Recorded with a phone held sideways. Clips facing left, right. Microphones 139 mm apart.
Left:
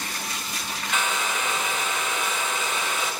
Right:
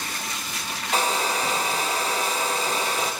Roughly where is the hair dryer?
Right.